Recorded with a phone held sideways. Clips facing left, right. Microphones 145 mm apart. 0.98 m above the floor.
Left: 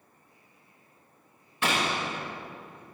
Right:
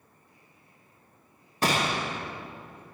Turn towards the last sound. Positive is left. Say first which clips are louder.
# right 2 dB
turn(degrees=-40)  # may be behind; listen again after turning